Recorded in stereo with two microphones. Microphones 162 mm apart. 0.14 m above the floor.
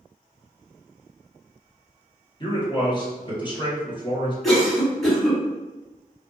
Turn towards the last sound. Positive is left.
turn(degrees=0)  # may be behind; listen again after turning